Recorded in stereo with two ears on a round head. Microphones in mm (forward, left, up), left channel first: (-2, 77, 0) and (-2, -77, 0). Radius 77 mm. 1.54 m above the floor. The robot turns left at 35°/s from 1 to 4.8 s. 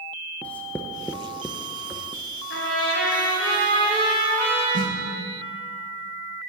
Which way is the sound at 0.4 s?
10° left (ahead or behind).